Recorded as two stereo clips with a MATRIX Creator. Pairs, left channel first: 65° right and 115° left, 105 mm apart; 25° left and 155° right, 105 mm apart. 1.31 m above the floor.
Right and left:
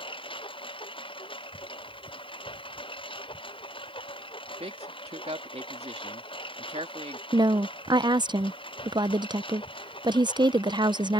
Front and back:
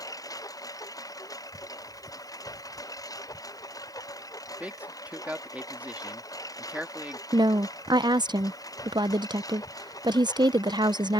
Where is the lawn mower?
30° right.